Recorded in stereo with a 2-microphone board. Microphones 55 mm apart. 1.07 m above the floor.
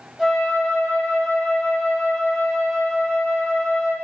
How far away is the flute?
About 0.8 m.